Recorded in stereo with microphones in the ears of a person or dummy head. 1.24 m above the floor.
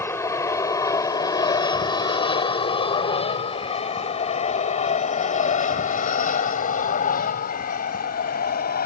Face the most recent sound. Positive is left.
turn(degrees=50)  # may be behind; listen again after turning